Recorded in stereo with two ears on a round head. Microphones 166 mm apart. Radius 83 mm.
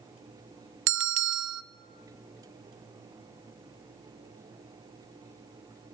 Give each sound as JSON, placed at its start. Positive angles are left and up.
{"t": 0.9, "sound": "a bell", "side_deg": -70, "distance_m": 0.6}